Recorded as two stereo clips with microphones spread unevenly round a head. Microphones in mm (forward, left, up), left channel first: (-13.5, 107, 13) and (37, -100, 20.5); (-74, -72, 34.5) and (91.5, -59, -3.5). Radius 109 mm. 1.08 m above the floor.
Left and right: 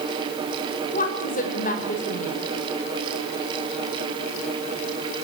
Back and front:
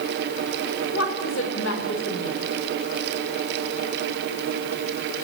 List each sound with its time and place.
0.9 s a woman speaking: 160° left, 5.5 m